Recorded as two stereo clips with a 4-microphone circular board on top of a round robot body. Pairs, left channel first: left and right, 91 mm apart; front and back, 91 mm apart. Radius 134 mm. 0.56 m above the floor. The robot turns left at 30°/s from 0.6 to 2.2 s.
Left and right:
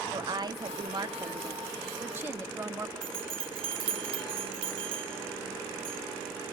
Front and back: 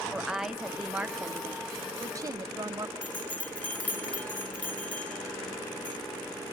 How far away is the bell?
About 0.9 m.